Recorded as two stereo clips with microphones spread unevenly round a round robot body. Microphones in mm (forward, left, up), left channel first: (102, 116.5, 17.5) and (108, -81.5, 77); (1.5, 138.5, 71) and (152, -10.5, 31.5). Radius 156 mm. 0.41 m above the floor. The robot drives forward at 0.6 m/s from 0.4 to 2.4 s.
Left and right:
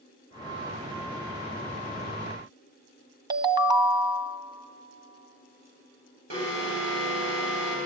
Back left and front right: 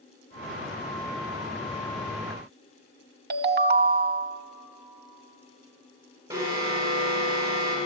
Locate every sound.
3.3 s a ringtone: 10° right, 0.5 m
6.3 s an alarm: 110° right, 4.5 m